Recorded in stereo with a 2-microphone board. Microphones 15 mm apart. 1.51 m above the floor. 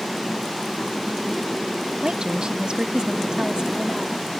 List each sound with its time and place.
2.0 s a woman speaking: 75° right (ahead or behind); by 4.3 s 55° right (ahead or behind)